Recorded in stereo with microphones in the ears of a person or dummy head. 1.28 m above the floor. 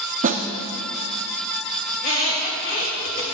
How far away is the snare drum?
About 0.7 m.